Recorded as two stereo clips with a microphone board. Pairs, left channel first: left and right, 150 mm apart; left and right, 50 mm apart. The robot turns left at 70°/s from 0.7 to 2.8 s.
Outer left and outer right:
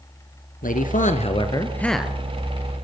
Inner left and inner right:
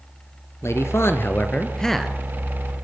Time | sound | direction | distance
0.6 | a man speaking | 90° left | 3 m